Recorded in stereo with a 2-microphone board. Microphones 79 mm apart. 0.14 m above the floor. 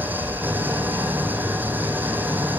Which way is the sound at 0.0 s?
25° right (ahead or behind).